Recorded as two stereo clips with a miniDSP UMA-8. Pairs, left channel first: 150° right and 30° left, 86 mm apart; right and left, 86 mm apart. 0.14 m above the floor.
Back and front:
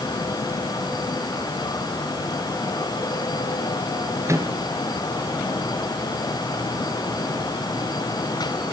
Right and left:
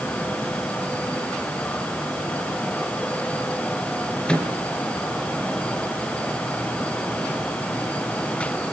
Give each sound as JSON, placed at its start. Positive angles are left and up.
{"t": 4.3, "sound": "a microwave", "azimuth_deg": -15, "distance_m": 2.0}